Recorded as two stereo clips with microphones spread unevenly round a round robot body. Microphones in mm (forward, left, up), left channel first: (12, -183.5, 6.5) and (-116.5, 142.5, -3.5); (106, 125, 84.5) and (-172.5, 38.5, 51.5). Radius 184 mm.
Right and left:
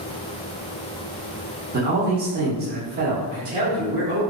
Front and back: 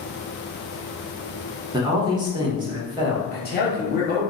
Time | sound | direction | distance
1.7 | a man speaking | 145° left | 0.8 m
3.3 | a man speaking | 50° left | 1.1 m